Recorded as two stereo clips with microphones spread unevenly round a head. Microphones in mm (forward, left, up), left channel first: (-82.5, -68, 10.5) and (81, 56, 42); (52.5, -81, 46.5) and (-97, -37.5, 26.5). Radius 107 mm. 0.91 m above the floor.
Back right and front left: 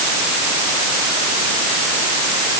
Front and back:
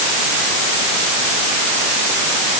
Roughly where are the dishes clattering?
No dishes clattering in this recording.